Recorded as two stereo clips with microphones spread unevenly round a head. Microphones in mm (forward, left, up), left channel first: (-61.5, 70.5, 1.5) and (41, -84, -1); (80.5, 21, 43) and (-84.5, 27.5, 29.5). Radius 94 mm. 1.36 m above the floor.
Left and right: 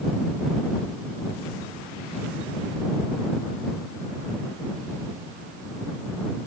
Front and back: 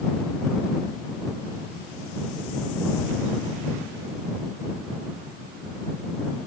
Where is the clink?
I don't hear a clink.